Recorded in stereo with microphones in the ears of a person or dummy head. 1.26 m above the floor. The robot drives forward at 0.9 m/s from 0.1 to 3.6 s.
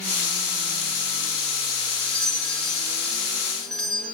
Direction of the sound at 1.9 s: 5° left (ahead or behind).